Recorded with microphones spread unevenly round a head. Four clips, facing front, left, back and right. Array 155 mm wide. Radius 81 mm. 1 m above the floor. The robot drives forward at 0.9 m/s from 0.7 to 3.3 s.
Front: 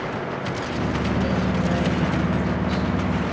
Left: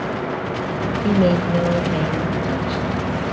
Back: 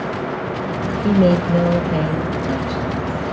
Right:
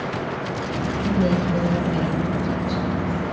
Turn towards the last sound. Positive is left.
turn(degrees=170)